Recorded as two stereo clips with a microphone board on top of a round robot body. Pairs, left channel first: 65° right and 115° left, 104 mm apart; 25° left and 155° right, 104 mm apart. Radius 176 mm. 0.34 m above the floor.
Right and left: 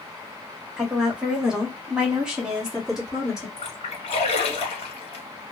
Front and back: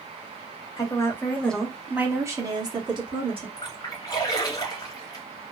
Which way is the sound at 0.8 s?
35° left.